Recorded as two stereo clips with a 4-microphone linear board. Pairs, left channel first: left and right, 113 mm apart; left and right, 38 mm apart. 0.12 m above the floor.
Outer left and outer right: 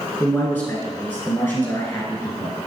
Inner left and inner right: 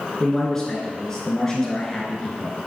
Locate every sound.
0.2 s a man speaking: 20° left (ahead or behind), 1.6 m